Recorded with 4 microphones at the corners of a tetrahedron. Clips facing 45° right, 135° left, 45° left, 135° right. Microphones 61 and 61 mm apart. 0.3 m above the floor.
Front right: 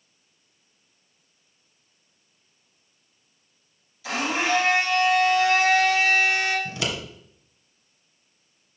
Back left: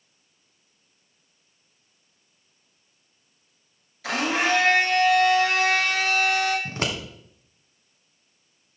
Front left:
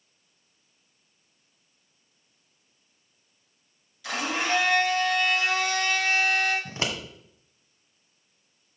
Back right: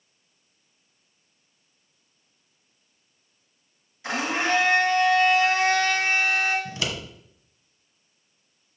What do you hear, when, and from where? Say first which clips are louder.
4.0 s a blender: back left 1 dB, back right 3 dB; 165° left, 3 m
6.7 s scissors: back left 1 dB, even; 95° left, 1.5 m